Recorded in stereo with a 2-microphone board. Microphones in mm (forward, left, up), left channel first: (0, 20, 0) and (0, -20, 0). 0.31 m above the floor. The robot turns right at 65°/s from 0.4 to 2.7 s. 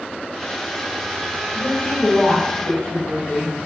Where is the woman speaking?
40° left, 1.9 m; by 3.6 s 115° left, 1.9 m.